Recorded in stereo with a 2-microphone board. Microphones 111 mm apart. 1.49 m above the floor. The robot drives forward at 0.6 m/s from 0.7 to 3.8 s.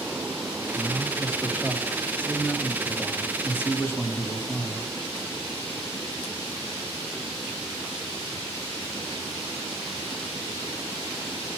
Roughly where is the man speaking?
Centre.